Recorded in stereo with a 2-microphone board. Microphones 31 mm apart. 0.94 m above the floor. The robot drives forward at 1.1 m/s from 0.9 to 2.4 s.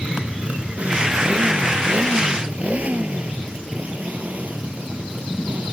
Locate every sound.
0.0 s a motorcycle: 40° right (ahead or behind); by 5.7 s 55° right (ahead or behind)